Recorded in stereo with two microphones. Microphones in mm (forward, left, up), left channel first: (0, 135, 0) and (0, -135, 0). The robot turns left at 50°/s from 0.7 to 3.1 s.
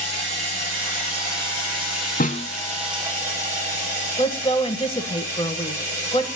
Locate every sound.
0.0 s running water: 50° right, 9.5 m; by 6.4 s 170° right, 9.5 m
2.2 s a snare drum: 35° left (ahead or behind), 0.6 m; by 2.5 s 20° left (ahead or behind), 0.6 m
4.2 s a woman speaking: 20° left (ahead or behind), 1.2 m